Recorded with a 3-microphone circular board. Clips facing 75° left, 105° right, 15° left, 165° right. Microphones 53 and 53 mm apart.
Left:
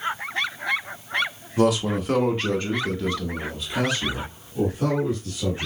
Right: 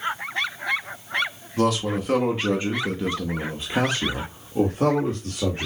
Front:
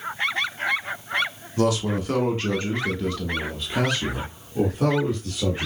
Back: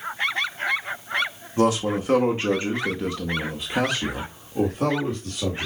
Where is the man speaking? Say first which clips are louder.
Left 2 dB, back 2 dB; 150° left, 1.4 m; by 5.7 s 80° right, 1.9 m.